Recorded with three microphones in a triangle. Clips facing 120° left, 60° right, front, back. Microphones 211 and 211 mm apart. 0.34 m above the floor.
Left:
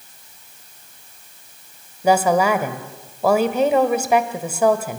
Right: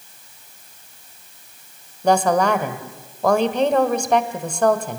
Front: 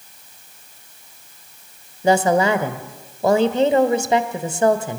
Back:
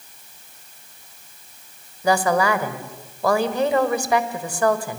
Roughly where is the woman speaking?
Ahead left.